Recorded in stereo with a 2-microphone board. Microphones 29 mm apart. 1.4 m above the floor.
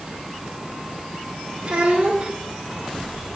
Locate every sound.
1.6 s a child speaking: 50° right (ahead or behind), 2.5 m